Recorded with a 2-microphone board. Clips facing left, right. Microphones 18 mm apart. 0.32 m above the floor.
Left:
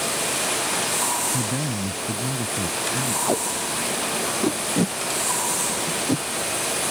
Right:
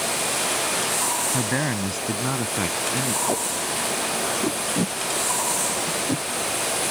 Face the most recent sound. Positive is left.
turn(degrees=5)  # may be behind; listen again after turning